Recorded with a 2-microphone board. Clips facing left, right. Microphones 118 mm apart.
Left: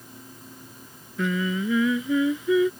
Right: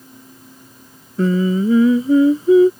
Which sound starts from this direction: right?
Singing, at 1.2 s.